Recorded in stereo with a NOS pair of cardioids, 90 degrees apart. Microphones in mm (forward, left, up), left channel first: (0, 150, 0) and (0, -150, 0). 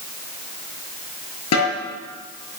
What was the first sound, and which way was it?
A snare drum, 60° left.